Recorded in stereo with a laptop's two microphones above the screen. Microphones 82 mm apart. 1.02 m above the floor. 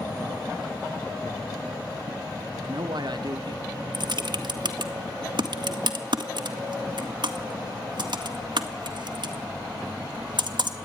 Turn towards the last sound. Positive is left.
turn(degrees=-65)  # may be behind; listen again after turning